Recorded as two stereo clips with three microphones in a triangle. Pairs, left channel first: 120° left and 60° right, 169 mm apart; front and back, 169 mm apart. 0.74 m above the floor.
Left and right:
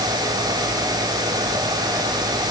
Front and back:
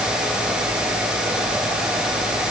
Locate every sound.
Only background noise.